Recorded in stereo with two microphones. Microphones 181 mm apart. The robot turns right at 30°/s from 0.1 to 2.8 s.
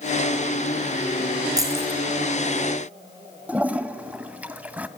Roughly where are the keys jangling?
Centre.